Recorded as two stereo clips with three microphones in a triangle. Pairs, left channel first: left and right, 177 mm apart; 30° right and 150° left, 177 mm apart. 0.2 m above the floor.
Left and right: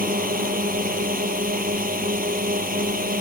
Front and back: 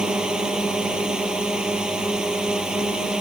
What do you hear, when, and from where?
0.0 s a drone: 125° right